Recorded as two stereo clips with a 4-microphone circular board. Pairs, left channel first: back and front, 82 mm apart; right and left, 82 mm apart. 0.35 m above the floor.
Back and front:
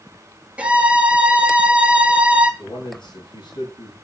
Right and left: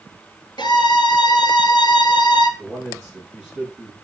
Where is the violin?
75° right, 1.2 m.